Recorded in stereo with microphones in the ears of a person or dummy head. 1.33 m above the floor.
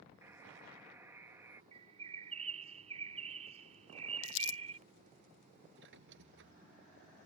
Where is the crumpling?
65° left (ahead or behind).